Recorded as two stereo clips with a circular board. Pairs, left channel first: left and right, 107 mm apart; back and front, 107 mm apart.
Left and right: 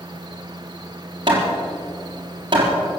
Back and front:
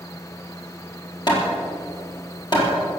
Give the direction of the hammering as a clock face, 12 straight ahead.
4 o'clock.